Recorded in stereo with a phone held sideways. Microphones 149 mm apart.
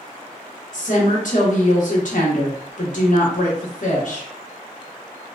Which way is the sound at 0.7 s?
60° left (ahead or behind).